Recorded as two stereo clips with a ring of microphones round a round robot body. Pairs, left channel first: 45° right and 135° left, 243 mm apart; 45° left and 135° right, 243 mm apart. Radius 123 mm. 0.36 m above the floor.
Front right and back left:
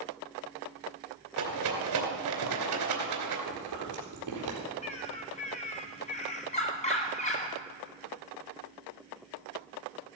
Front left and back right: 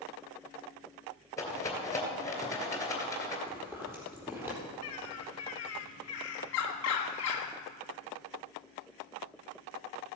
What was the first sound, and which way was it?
A rattle, 125° left.